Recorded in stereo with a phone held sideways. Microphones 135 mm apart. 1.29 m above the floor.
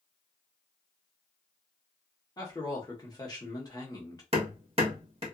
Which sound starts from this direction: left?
A man speaking, at 2.4 s.